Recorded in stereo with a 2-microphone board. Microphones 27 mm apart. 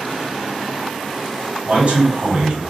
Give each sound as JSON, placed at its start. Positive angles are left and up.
{"t": 1.6, "sound": "a man speaking", "side_deg": -45, "distance_m": 1.9}